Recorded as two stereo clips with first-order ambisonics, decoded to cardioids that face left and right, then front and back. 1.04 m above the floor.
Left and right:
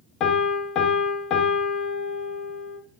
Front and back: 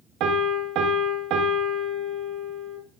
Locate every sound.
0.2 s a piano: 140° left, 0.6 m